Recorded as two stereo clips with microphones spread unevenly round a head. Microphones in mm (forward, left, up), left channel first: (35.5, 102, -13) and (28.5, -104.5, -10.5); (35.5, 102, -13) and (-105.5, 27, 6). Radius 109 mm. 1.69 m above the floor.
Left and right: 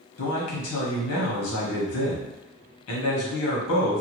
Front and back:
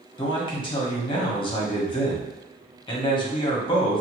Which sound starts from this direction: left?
A man speaking, at 0.2 s.